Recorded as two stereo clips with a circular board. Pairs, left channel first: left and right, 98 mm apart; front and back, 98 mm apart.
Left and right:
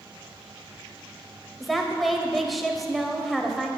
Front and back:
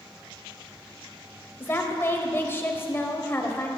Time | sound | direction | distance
1.6 | a woman speaking | straight ahead | 0.9 m